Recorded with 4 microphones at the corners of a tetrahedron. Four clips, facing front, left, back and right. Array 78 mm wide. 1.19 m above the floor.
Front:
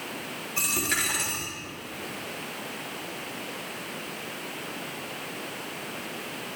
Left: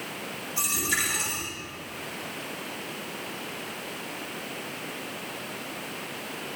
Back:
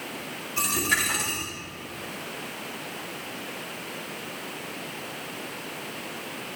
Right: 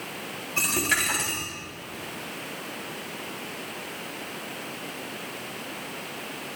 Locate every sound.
0.6 s a dropped coin: 90° right, 3.5 m